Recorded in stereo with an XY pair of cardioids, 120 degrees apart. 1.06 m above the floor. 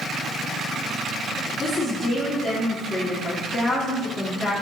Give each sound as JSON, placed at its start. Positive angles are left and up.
{"t": 1.6, "sound": "a woman speaking", "azimuth_deg": 35, "distance_m": 2.0}